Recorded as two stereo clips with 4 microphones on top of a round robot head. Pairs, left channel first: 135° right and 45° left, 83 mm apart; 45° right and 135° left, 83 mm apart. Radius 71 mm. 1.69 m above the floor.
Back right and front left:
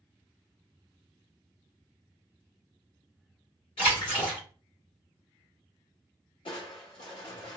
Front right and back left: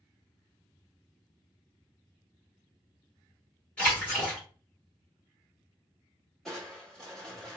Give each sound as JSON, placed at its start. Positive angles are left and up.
{"t": 3.8, "sound": "a splash", "azimuth_deg": -125, "distance_m": 1.4}
{"t": 6.5, "sound": "crushing", "azimuth_deg": -135, "distance_m": 1.1}